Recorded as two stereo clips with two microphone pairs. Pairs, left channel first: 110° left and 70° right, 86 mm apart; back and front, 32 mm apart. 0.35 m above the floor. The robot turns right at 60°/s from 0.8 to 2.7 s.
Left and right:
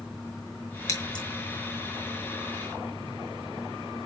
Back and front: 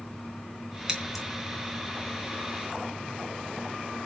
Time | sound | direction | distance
0.9 | scissors | 65° left | 3 m